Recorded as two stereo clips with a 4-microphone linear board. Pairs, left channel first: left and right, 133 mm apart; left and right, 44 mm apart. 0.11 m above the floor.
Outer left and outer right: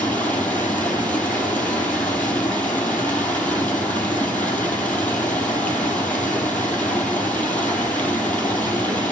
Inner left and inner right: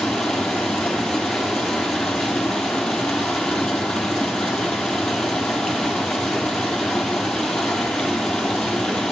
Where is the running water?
10° left (ahead or behind), 1.3 m.